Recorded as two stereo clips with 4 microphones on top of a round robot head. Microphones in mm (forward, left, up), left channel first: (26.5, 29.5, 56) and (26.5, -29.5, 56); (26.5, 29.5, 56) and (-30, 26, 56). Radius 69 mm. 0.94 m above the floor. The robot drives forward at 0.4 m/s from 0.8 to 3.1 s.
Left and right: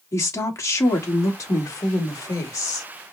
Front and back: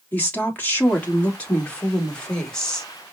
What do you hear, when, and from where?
0.1 s a woman speaking: 60° left, 2.5 m; by 2.9 s 80° left, 2 m